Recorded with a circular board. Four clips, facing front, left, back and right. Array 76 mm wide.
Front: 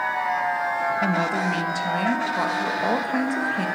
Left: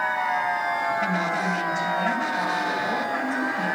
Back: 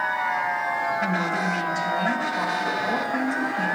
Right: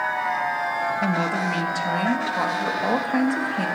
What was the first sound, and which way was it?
A woman speaking, 45° right.